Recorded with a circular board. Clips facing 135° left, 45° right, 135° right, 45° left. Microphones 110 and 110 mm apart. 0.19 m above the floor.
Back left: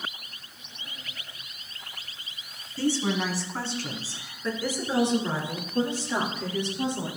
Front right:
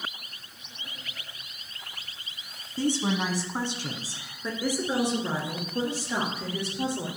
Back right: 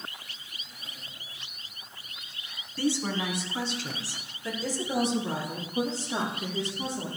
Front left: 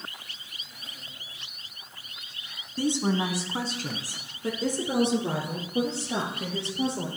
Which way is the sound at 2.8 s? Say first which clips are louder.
Even, front left 3 dB; 5° right.